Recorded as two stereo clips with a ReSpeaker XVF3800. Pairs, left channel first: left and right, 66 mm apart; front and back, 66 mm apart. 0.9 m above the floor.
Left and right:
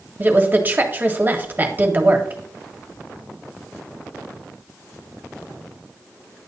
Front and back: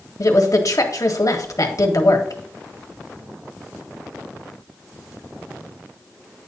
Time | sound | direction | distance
0.2 | a woman speaking | 30° right | 1.6 m